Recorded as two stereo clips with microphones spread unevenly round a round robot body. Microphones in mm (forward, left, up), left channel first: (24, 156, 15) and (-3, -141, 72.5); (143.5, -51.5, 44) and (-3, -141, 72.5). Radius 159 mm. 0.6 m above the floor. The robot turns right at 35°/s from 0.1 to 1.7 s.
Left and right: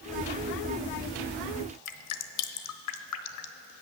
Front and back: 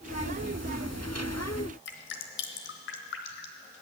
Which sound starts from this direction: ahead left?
Dripping, at 1.9 s.